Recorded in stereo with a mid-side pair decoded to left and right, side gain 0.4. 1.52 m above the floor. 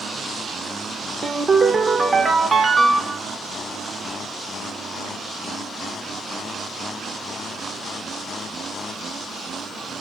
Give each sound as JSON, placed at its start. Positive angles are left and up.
{"t": 1.2, "sound": "a ringtone", "azimuth_deg": -35, "distance_m": 1.1}